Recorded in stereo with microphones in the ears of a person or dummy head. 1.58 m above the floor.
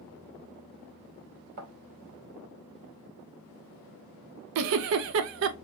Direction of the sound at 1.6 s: 55° right (ahead or behind).